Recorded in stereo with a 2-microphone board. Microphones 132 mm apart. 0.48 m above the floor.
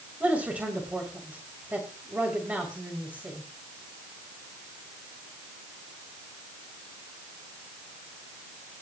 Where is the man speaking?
10° right (ahead or behind), 2.5 m.